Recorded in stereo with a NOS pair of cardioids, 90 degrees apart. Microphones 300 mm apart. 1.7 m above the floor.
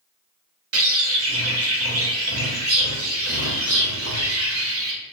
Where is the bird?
45° right, 1.6 m.